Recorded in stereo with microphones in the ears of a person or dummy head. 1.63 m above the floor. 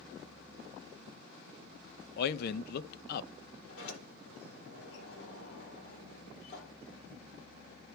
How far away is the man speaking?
About 0.6 m.